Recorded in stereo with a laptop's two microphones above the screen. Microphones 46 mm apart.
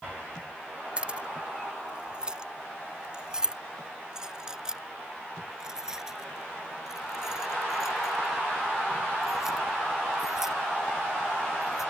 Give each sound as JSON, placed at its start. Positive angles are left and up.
{"t": 1.0, "sound": "keys jangling", "side_deg": -20}